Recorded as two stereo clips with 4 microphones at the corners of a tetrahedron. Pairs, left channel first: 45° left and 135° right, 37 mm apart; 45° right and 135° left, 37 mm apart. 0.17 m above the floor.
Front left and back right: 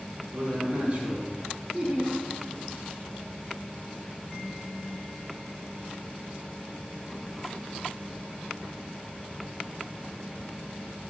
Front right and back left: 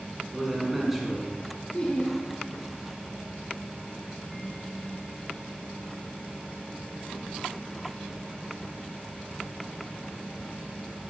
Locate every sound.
0.3 s a man speaking: 140° right, 1.8 m
1.7 s laughter: 65° right, 2 m